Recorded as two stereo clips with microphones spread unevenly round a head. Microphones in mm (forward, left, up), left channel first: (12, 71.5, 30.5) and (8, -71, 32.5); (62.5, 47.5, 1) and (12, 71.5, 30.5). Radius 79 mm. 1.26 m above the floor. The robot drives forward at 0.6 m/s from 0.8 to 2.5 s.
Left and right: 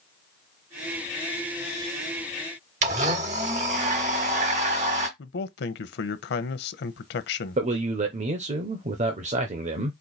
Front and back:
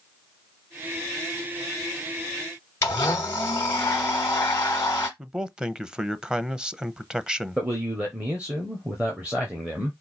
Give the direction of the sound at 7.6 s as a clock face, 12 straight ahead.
4 o'clock.